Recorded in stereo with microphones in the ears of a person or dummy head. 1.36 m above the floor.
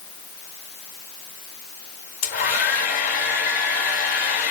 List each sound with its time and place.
2.2 s a hair dryer: 35° left (ahead or behind), 1.7 m